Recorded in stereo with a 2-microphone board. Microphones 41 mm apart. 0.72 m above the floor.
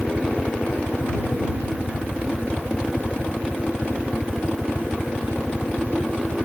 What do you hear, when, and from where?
0.0 s a helicopter: 50° left (ahead or behind); by 6.5 s 55° left (ahead or behind)